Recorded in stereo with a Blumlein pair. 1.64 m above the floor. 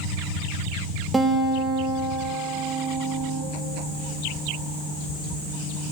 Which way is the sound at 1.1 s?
10° right.